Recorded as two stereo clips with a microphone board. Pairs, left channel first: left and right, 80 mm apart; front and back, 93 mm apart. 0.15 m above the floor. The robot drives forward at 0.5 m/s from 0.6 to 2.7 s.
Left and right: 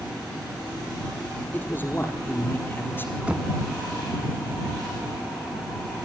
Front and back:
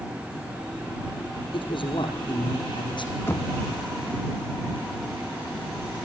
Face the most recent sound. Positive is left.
turn(degrees=-30)